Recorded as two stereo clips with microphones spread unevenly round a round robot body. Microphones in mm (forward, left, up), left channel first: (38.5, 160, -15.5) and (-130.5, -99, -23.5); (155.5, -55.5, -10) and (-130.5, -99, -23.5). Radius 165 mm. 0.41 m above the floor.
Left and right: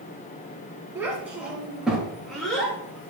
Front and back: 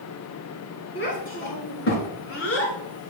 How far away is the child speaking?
About 4 m.